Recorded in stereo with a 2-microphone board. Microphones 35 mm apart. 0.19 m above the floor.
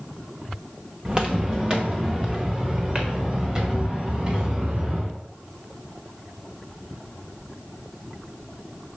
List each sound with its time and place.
1.1 s footsteps: 25° right (ahead or behind), 1.3 m